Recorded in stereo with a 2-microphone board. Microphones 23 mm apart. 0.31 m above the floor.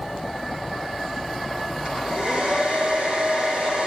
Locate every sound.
1.9 s a hair dryer: 50° right (ahead or behind), 7.5 m